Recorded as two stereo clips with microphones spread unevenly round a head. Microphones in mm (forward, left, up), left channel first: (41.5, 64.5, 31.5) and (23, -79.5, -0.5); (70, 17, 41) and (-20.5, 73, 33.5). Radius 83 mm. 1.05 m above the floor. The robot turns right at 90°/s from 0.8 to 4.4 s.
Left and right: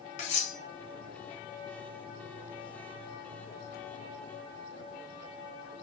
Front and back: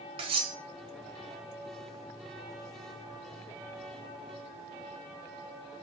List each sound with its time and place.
0.2 s cutlery clinking: 115° left, 0.7 m